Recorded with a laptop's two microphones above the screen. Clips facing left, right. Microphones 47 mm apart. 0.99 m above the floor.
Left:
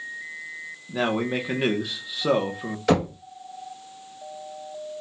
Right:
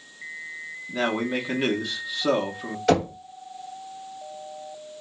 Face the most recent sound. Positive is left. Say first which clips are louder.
# right 1 dB
turn(degrees=0)  # may be behind; listen again after turning